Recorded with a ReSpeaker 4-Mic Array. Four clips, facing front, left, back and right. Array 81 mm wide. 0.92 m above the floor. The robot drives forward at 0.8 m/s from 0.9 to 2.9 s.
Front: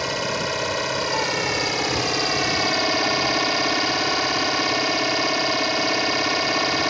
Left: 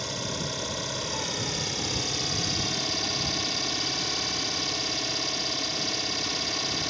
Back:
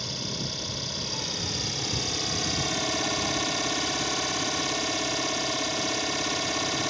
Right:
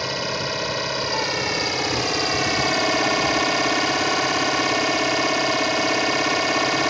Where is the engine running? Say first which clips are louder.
Right 8 dB, front 11 dB; 35° right; by 6.9 s 60° right.